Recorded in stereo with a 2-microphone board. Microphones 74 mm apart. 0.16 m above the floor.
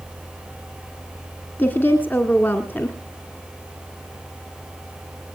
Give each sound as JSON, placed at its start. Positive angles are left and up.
{"t": 1.6, "sound": "a woman speaking", "side_deg": 25, "distance_m": 1.4}